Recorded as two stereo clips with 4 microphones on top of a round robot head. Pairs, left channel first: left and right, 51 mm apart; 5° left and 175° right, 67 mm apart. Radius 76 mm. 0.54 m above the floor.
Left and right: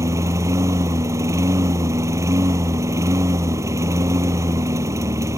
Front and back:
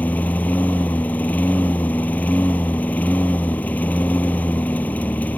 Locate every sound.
0.0 s a lawn mower: 70° right